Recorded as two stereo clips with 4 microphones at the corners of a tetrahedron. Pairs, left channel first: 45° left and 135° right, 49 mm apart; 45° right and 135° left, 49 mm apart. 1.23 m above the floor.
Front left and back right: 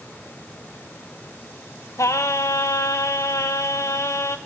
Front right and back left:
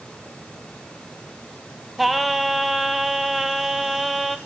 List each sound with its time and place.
2.0 s singing: 45° left, 0.7 m